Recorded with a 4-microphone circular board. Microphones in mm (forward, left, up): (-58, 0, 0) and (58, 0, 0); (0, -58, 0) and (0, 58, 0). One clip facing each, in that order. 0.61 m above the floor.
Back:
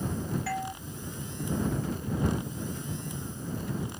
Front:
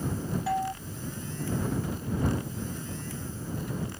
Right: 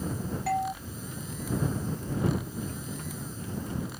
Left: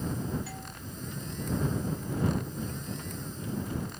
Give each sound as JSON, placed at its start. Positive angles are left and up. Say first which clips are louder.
{"t": 0.5, "sound": "a doorbell", "louder": "front 5 dB, right 15 dB", "azimuth_deg": -70}